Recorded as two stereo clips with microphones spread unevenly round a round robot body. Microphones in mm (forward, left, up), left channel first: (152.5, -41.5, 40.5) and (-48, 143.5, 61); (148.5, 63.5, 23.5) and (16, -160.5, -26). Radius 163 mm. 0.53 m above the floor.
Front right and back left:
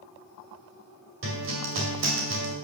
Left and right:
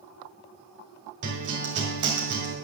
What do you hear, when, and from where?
1.2 s a guitar: 175° right, 2.0 m